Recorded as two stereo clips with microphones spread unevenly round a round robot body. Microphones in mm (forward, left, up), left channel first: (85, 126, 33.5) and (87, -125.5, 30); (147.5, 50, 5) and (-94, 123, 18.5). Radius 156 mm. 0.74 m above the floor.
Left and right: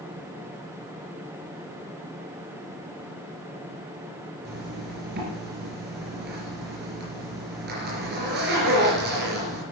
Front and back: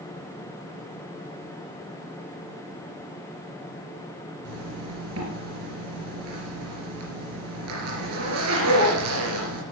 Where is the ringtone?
I don't hear a ringtone.